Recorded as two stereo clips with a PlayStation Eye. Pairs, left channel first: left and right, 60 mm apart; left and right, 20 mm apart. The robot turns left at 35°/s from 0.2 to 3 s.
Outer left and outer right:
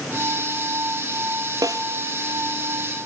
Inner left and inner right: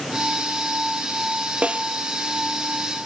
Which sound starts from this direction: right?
A snare drum, at 1.6 s.